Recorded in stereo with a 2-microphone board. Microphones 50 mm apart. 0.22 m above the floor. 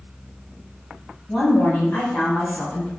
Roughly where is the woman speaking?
Left.